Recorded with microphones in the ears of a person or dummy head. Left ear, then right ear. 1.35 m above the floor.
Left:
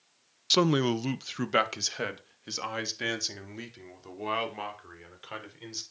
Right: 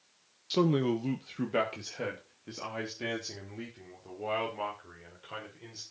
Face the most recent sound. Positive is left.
turn(degrees=55)  # may be behind; listen again after turning